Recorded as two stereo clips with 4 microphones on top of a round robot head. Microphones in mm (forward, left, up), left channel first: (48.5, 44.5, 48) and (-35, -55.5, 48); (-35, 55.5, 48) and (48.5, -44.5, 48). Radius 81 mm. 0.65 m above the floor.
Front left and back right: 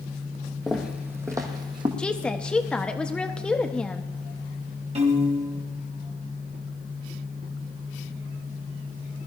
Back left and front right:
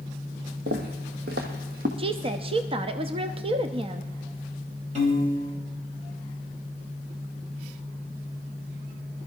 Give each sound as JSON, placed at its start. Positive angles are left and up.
{"t": 0.7, "sound": "footsteps", "azimuth_deg": -40, "distance_m": 1.6}
{"t": 2.0, "sound": "a woman speaking", "azimuth_deg": -30, "distance_m": 0.7}
{"t": 5.0, "sound": "a piano", "azimuth_deg": -90, "distance_m": 2.5}